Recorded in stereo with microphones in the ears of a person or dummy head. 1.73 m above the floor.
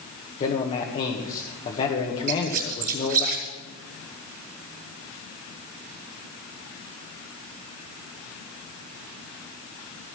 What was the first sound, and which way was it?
A man speaking, 35° left (ahead or behind).